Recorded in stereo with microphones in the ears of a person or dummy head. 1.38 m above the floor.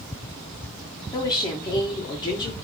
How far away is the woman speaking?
About 1.3 m.